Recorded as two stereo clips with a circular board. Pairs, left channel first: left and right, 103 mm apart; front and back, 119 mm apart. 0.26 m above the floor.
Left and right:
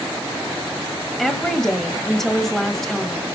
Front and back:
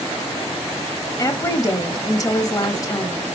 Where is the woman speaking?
5° left, 1.0 m.